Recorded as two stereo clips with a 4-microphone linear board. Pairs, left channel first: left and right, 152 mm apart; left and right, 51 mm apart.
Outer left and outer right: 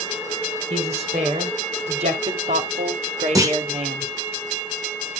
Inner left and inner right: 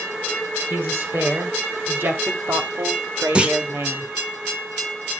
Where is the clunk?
20° right (ahead or behind), 1.6 m.